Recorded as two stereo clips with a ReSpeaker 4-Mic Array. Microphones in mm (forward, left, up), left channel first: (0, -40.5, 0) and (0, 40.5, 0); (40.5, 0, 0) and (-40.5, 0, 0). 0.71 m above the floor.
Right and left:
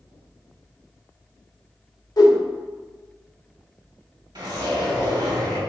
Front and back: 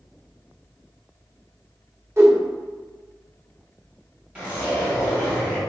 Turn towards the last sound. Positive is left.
turn(degrees=110)